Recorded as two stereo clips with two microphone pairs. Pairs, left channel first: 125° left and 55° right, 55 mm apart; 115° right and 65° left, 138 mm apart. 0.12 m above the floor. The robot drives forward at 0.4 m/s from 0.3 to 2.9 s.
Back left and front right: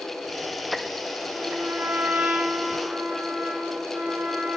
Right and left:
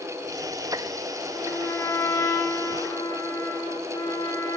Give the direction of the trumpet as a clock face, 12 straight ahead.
2 o'clock.